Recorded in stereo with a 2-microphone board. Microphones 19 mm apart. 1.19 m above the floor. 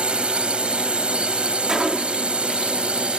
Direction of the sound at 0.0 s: 75° right (ahead or behind).